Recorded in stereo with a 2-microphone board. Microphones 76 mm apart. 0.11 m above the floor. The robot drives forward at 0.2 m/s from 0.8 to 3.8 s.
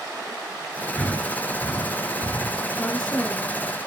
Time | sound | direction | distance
1.0 | breathing | 15° left (ahead or behind) | 1.5 m
2.8 | a woman speaking | 10° left (ahead or behind) | 1.1 m